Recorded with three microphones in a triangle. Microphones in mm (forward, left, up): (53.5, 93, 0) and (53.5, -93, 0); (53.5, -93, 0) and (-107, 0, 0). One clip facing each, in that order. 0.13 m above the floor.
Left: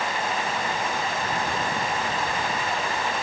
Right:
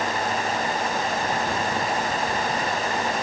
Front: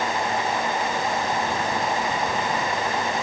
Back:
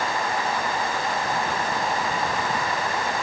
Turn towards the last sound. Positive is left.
No sound to turn to.